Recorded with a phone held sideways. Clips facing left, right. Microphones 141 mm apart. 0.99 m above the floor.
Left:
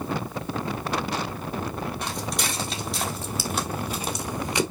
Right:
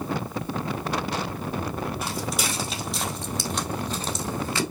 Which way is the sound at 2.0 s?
5° right (ahead or behind).